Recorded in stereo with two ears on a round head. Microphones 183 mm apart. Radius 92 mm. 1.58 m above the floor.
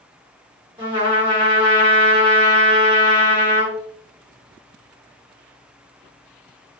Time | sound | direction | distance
0.8 | a trumpet | 20° right (ahead or behind) | 1.3 m